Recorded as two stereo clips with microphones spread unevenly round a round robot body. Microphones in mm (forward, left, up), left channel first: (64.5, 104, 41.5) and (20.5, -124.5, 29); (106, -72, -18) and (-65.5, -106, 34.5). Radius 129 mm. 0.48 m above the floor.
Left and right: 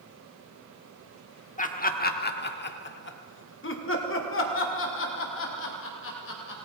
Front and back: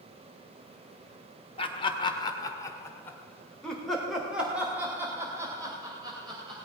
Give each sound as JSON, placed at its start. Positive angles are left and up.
{"t": 1.6, "sound": "laughter", "azimuth_deg": 35, "distance_m": 1.7}